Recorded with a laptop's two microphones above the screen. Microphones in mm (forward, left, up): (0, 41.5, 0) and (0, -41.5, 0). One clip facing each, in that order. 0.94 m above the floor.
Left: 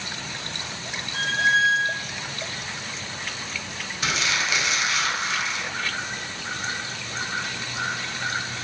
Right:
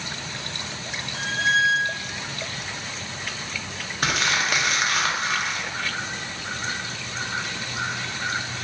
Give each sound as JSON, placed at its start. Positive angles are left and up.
{"t": 1.1, "sound": "a squeak", "side_deg": 60, "distance_m": 1.9}
{"t": 4.0, "sound": "crumpling", "side_deg": -50, "distance_m": 0.7}